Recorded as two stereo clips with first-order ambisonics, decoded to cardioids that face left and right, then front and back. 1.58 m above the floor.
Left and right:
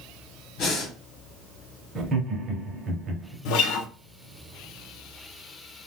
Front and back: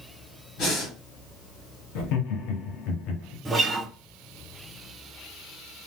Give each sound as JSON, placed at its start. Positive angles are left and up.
{"t": 0.6, "sound": "breathing", "azimuth_deg": 45, "distance_m": 1.3}
{"t": 1.9, "sound": "laughter", "azimuth_deg": -25, "distance_m": 1.1}
{"t": 3.5, "sound": "a guitar", "azimuth_deg": 100, "distance_m": 0.8}